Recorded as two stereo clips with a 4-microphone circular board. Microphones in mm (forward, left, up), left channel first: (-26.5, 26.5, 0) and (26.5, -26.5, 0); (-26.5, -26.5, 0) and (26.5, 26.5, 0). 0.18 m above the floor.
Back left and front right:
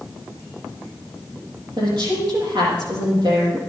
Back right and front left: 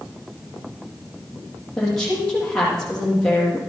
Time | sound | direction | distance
1.8 | a woman speaking | 55° right | 6.5 m